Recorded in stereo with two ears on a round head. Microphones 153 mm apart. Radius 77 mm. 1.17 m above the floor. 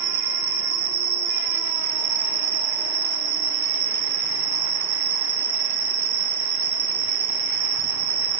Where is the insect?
35° right (ahead or behind), 0.7 m.